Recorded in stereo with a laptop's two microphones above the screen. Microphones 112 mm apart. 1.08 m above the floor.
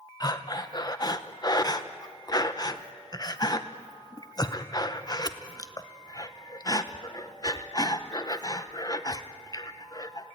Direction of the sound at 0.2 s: 35° left (ahead or behind).